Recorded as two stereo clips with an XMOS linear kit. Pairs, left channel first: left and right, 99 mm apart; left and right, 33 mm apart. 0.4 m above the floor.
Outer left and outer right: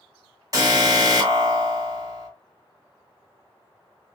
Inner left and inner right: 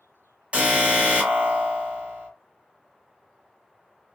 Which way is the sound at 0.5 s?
35° right (ahead or behind).